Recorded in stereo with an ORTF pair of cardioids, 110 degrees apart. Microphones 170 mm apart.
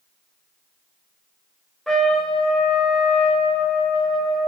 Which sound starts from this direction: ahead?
A trumpet, at 1.9 s.